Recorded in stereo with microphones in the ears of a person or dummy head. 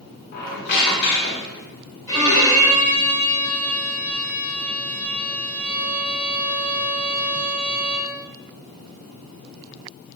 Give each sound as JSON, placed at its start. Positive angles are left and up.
{"t": 0.3, "sound": "a squeak", "side_deg": 50, "distance_m": 0.8}
{"t": 2.1, "sound": "a violin", "side_deg": 15, "distance_m": 1.0}